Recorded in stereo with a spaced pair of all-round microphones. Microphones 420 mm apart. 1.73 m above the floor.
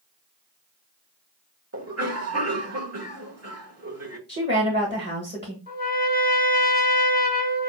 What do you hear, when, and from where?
1.7 s a cough: 35° right (ahead or behind), 1.0 m
4.3 s a woman speaking: 25° right (ahead or behind), 1.1 m
5.7 s a trumpet: 20° left (ahead or behind), 1.2 m